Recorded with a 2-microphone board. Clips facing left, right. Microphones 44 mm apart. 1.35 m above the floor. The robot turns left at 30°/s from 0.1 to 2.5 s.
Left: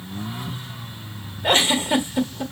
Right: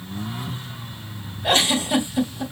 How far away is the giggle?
About 1.1 m.